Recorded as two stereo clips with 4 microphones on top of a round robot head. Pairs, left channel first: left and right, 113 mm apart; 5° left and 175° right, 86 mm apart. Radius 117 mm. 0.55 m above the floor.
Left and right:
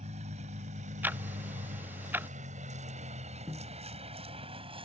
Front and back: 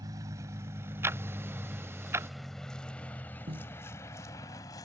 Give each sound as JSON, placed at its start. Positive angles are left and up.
{"t": 0.0, "sound": "a vehicle", "azimuth_deg": -120}
{"t": 1.0, "sound": "ticking", "azimuth_deg": -150}
{"t": 3.5, "sound": "a snare drum", "azimuth_deg": -170}